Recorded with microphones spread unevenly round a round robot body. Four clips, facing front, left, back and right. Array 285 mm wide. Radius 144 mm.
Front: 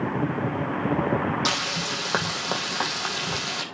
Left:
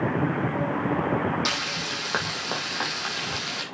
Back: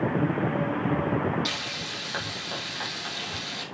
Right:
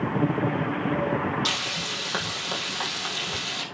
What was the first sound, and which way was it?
Frying, 15° left.